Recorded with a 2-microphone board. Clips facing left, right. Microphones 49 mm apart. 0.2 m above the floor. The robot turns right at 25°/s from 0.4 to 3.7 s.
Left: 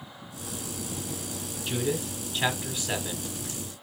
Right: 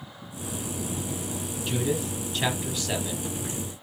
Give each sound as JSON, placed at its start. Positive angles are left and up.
{"t": 1.7, "sound": "a man speaking", "side_deg": 0, "distance_m": 1.1}